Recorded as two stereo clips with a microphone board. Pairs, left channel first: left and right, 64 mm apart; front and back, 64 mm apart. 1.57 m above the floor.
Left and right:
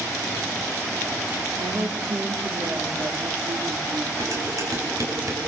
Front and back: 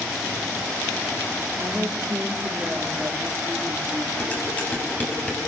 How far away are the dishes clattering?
About 8 m.